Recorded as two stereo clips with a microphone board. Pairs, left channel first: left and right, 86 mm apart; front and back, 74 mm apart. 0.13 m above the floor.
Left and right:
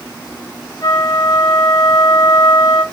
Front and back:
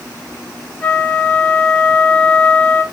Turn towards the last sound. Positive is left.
turn(degrees=65)